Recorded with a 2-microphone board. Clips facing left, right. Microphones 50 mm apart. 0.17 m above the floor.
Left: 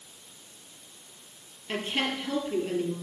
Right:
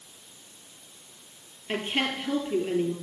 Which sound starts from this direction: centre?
A woman speaking, at 1.7 s.